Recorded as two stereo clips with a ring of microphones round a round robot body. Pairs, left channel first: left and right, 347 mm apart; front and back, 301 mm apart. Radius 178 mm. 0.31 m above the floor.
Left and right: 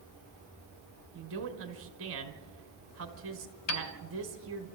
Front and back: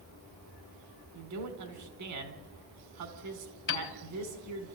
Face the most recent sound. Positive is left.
turn(degrees=45)